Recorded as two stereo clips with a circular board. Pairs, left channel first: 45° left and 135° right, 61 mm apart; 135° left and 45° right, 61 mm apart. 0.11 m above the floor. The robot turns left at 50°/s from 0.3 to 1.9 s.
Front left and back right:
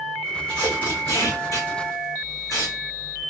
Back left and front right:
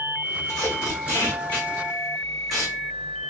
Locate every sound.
0.5 s tape being pulled: 120° left, 2 m; by 2.8 s 50° left, 2 m